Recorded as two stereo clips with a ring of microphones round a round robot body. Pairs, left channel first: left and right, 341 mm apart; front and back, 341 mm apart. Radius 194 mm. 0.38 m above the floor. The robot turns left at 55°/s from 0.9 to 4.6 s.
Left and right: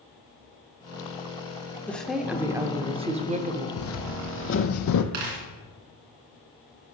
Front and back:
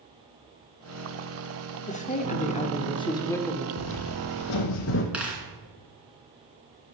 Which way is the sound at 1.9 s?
15° left.